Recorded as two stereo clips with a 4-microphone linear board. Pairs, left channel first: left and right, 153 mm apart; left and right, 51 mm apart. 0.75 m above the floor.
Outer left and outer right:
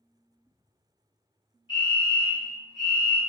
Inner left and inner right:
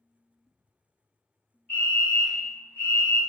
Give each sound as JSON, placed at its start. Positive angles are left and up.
{"t": 1.7, "sound": "a fire alarm", "side_deg": 30, "distance_m": 1.7}